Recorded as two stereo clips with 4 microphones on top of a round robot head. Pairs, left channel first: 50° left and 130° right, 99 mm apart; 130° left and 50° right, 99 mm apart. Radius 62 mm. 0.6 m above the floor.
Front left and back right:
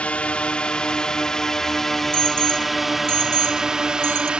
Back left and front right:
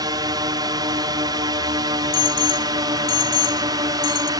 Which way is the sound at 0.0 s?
20° right.